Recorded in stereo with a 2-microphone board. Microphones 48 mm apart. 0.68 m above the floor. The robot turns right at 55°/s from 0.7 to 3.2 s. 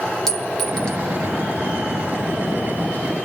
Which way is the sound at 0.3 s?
5° left (ahead or behind).